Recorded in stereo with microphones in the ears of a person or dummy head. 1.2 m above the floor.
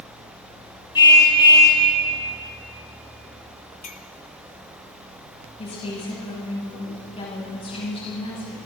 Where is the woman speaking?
40° left (ahead or behind), 9 m.